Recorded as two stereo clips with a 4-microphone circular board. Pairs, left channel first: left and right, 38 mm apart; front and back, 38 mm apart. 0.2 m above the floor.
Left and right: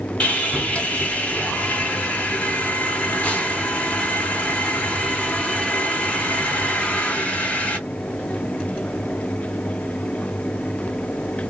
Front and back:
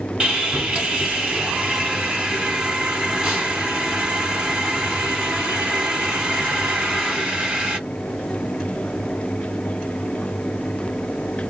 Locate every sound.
0.2 s sawing: 120° left, 2.5 m